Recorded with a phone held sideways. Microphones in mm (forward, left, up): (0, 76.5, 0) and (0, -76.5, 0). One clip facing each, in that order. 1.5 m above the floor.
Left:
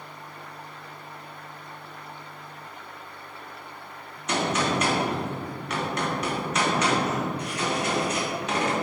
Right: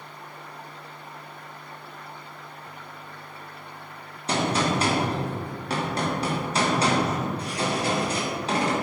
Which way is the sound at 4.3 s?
30° right (ahead or behind).